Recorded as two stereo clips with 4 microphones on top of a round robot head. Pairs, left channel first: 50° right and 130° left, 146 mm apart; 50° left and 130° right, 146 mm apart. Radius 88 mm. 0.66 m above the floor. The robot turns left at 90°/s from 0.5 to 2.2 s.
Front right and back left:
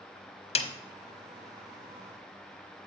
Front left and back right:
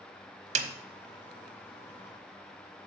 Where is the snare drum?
95° right, 0.9 m; by 0.7 s 110° right, 0.9 m.